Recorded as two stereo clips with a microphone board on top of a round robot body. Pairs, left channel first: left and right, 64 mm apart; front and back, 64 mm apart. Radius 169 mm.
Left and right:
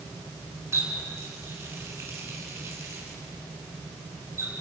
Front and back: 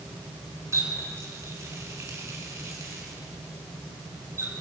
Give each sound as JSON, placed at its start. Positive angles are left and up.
{"t": 0.7, "sound": "a running tap", "azimuth_deg": -140, "distance_m": 5.0}